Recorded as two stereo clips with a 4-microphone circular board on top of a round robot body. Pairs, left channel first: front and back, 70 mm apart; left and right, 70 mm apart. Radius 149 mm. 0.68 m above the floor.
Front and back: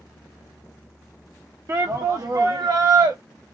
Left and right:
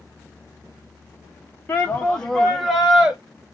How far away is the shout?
About 0.9 m.